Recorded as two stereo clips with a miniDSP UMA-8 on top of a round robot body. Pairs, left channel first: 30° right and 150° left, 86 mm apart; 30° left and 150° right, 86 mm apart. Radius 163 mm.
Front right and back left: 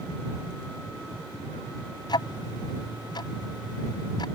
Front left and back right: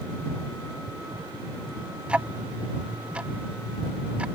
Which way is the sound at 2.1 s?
70° right.